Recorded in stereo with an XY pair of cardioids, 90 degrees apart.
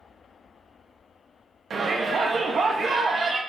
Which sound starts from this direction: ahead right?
A shout, at 1.7 s.